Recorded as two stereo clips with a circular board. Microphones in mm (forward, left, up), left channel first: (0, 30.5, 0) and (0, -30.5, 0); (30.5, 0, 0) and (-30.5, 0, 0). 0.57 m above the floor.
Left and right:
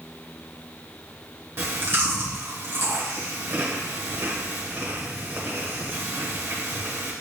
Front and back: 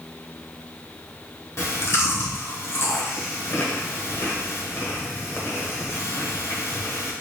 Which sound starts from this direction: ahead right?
Chewing, at 1.6 s.